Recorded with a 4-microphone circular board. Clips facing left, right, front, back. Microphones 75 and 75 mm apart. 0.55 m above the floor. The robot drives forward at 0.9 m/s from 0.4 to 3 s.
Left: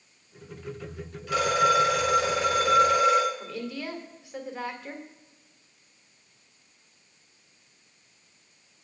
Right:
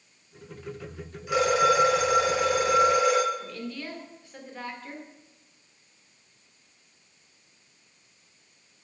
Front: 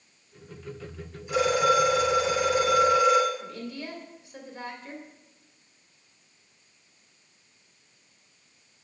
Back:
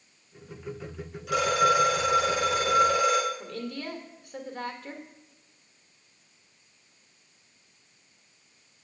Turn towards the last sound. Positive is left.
turn(degrees=165)